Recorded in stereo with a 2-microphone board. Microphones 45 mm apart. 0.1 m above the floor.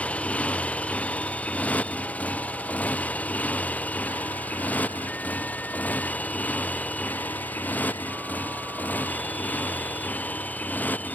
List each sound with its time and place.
0.0 s a motorcycle: 30° left (ahead or behind); by 11.2 s 40° left (ahead or behind)